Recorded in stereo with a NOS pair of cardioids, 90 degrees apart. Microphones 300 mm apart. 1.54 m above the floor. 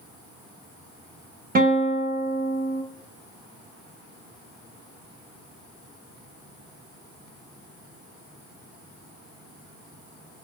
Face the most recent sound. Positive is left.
turn(degrees=-30)